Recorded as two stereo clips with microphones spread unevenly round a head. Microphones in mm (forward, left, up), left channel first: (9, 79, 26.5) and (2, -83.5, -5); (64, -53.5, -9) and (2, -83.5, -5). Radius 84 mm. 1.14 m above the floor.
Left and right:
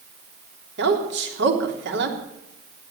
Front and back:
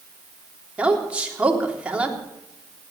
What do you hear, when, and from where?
0.8 s a woman speaking: 80° right, 3.5 m